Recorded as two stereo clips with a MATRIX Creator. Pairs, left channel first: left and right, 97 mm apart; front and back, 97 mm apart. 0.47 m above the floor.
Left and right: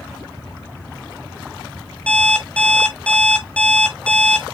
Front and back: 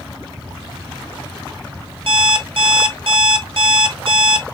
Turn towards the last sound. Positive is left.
turn(degrees=165)